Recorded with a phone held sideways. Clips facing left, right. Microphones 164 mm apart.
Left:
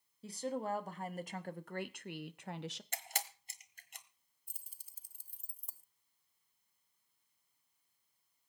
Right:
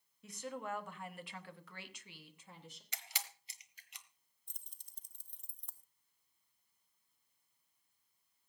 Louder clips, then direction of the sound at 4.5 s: Left 1 dB; 5° left (ahead or behind).